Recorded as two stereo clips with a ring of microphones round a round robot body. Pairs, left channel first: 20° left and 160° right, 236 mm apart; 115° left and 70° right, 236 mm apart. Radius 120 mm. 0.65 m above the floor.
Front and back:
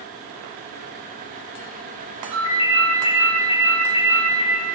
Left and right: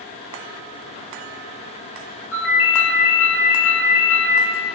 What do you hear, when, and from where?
2.3 s a ringtone: 120° left, 0.9 m